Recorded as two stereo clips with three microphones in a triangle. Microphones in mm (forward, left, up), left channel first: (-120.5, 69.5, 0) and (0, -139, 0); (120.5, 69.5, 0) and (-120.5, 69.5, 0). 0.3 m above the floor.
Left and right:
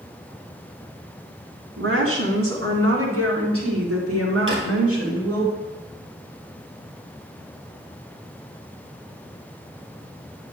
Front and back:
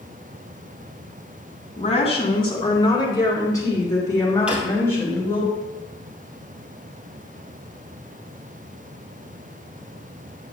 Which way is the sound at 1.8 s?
60° right.